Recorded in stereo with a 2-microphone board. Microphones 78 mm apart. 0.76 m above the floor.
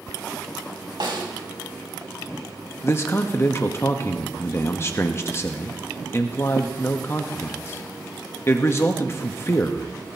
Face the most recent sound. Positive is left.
turn(degrees=35)  # may be behind; listen again after turning